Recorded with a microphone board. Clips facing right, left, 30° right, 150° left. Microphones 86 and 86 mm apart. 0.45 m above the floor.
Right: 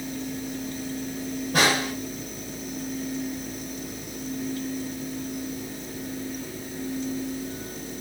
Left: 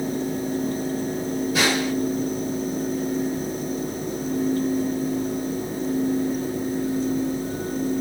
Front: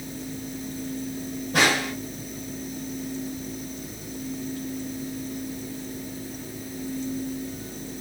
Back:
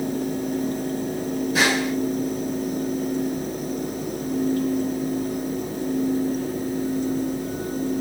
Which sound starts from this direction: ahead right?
A snare drum, at 1.5 s.